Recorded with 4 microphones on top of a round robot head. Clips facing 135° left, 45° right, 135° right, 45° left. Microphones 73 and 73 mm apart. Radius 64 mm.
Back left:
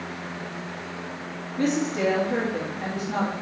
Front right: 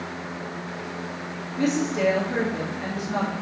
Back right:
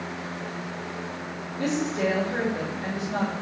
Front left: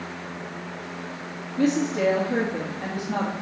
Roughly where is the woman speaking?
Ahead left.